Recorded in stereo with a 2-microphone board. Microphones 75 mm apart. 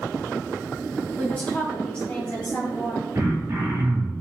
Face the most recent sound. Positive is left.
turn(degrees=-30)  # may be behind; listen again after turning